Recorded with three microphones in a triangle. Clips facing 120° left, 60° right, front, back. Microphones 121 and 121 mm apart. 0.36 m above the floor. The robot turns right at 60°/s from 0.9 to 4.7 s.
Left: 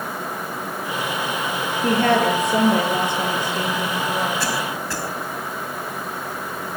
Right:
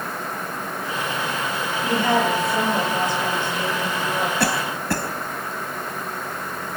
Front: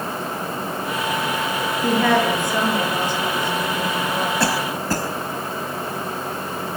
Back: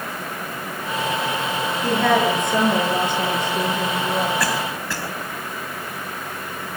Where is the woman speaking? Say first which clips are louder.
Left 3 dB, even; 75° left, 9 m; by 4.3 s 140° right, 9 m.